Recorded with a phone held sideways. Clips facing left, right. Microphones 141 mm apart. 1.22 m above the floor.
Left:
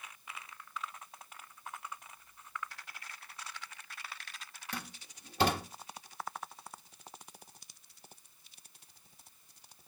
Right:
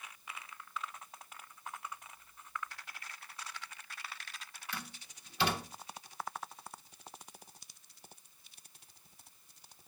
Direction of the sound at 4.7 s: 45° left (ahead or behind).